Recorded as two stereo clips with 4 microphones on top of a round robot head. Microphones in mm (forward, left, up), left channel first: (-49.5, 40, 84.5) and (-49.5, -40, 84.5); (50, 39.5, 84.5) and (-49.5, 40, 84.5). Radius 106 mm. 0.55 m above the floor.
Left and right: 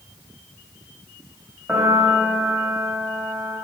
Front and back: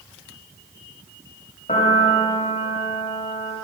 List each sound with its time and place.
1.7 s a piano: 10° right, 1.7 m